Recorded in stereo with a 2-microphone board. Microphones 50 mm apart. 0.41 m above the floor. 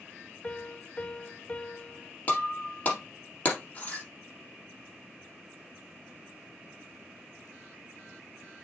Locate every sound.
0.4 s a piano: 25° left (ahead or behind), 0.6 m
2.3 s breaking glass: 30° left (ahead or behind), 3.5 m